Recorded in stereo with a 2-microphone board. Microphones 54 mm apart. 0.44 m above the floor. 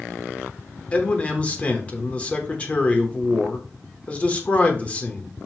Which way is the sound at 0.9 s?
25° left (ahead or behind).